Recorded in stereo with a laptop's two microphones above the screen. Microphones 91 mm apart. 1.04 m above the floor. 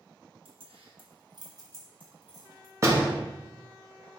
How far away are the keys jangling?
About 0.9 m.